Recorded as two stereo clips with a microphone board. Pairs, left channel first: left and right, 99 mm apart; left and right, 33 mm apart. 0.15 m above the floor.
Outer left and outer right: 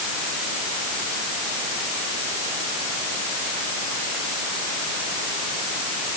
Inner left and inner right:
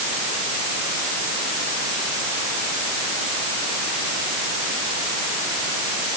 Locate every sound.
Only background noise.